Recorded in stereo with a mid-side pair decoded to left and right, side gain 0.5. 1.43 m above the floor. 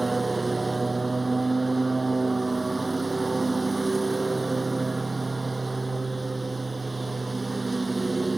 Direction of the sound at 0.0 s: 20° right.